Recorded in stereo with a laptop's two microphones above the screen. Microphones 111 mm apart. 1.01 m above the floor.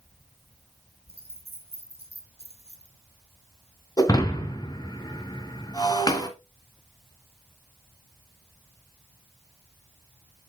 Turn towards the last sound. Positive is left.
turn(degrees=35)  # may be behind; listen again after turning